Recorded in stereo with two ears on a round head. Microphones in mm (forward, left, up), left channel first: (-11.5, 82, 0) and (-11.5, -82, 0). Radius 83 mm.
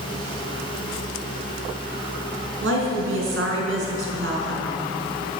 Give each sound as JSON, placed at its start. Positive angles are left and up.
{"t": 2.6, "sound": "a woman speaking", "side_deg": -70, "distance_m": 5.0}